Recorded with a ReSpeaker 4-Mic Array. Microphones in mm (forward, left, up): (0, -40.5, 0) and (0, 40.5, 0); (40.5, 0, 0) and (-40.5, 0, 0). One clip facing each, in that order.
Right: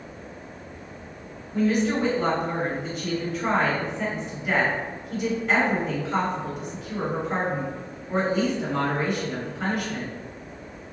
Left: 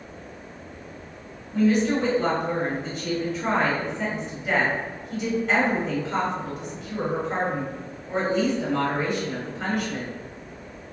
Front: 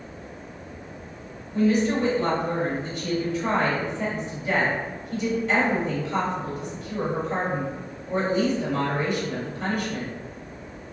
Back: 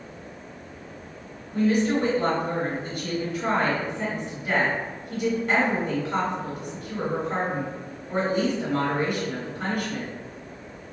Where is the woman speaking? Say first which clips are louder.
Left 2 dB, front 1 dB; straight behind, 1.5 m.